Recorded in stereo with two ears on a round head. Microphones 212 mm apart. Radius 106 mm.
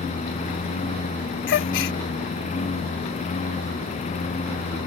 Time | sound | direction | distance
0.0 | a lawn mower | 30° left (ahead or behind) | ?
1.5 | a gasp | 50° left (ahead or behind) | ?